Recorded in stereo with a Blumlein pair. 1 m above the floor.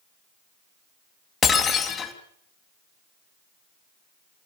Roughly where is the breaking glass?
Ahead.